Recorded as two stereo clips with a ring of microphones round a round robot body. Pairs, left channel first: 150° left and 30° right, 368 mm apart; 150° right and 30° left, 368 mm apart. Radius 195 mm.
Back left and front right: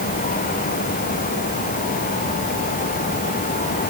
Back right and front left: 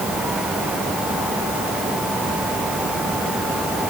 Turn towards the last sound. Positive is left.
No sound to turn to.